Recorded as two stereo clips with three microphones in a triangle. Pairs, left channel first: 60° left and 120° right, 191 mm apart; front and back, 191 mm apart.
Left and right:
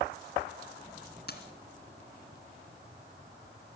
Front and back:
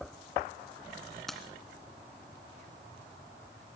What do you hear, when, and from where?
1.3 s keys jangling: 90° left, 2.5 m